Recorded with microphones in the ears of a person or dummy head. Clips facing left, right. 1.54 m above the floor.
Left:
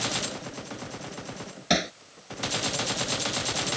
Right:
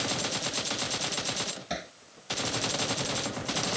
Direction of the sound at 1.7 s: 75° left (ahead or behind).